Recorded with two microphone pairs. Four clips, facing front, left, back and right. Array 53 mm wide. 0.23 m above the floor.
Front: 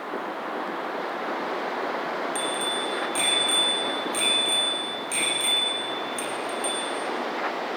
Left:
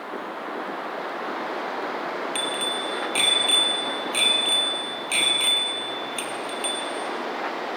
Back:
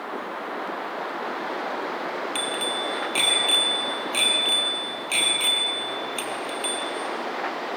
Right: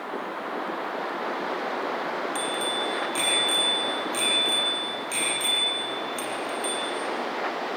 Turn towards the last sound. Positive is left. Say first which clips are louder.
# even, even
turn(degrees=135)